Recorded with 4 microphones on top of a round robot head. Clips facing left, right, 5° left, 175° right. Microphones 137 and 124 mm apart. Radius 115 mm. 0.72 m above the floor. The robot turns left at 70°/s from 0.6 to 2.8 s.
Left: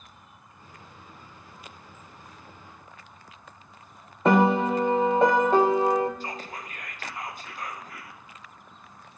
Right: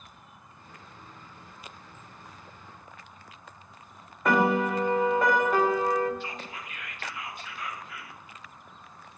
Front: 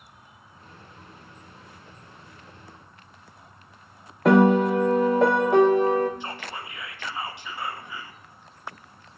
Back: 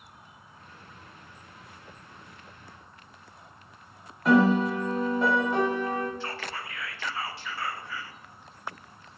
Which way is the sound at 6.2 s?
70° left.